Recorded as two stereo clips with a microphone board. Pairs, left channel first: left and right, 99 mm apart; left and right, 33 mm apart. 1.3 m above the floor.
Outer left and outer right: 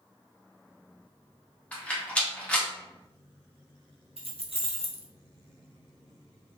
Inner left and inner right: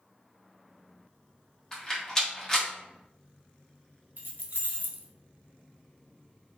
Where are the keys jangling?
70° right (ahead or behind), 0.6 m.